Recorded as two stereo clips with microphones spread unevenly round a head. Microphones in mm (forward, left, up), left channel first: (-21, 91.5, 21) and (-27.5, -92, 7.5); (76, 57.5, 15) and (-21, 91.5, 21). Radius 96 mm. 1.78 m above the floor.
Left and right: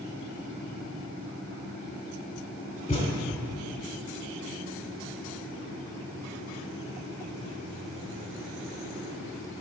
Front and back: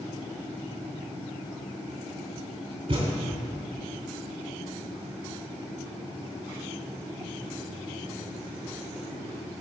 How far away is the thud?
About 3 m.